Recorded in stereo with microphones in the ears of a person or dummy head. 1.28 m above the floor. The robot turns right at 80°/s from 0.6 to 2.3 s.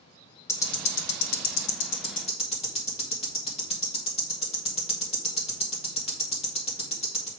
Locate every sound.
0.5 s ticking: 15° left (ahead or behind), 1.2 m; by 7.3 s 30° left (ahead or behind), 1.2 m